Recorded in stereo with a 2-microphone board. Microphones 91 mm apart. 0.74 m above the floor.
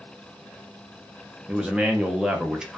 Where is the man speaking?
10° right (ahead or behind), 0.5 m.